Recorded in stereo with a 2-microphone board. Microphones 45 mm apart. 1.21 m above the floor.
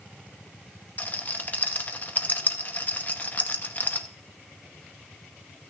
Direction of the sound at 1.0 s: 40° left (ahead or behind).